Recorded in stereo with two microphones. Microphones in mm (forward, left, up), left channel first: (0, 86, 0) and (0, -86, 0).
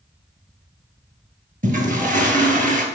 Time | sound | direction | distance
1.6 | a toilet flushing | 50° right (ahead or behind) | 1.3 m